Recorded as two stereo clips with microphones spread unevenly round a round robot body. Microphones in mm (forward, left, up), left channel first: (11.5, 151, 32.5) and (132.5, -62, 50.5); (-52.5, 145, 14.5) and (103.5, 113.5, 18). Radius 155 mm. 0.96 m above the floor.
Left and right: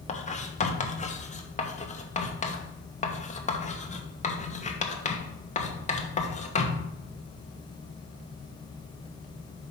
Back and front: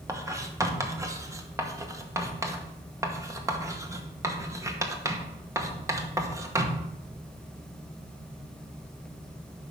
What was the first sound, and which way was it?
Writing, 60° left.